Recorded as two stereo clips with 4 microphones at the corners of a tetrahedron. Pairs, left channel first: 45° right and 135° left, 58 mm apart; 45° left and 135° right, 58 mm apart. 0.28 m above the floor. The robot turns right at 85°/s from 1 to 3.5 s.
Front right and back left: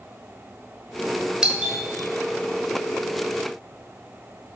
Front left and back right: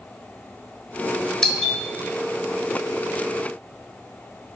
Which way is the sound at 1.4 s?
95° left.